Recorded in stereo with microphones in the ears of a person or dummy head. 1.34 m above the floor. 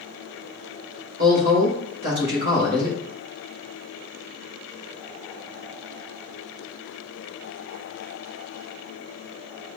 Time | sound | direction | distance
1.2 | a woman speaking | 55° right (ahead or behind) | 2.5 m